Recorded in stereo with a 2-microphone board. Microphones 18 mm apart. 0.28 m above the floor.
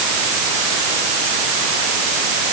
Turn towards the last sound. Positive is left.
No sound to turn to.